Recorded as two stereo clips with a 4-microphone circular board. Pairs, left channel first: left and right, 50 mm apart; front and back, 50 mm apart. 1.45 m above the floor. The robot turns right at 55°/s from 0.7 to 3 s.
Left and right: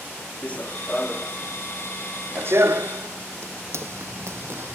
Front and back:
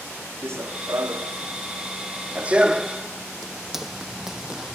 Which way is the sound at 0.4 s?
150° left.